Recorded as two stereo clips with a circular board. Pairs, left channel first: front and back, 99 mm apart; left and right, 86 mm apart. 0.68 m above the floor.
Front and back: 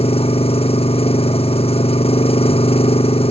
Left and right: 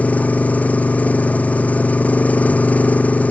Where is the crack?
No crack in this recording.